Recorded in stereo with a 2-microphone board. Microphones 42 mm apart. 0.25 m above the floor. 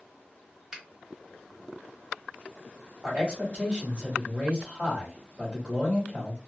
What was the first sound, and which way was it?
A finger snap, 15° right (ahead or behind).